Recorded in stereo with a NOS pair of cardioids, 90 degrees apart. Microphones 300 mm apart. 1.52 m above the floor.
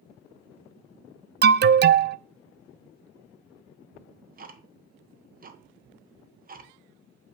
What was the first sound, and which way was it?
An alarm, 35° right.